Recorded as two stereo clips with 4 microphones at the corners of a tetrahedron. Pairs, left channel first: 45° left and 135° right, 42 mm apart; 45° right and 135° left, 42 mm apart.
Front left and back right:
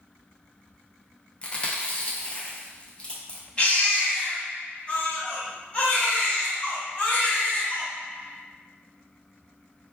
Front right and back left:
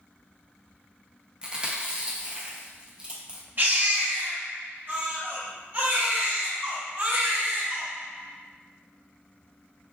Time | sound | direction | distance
1.4 | chewing | 85° left | 0.6 m
3.6 | a baby crying | 100° left | 1.0 m